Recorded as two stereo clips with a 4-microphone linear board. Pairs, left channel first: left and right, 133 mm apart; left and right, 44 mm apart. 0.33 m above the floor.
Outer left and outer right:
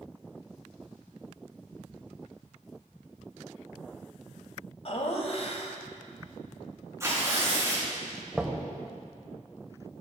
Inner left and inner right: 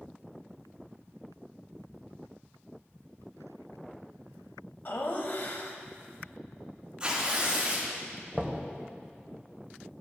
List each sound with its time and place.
4.8 s laughter: 50° left (ahead or behind), 1.3 m
7.0 s tearing paper: 20° right (ahead or behind), 3.5 m
8.3 s knocking: 5° right (ahead or behind), 1.1 m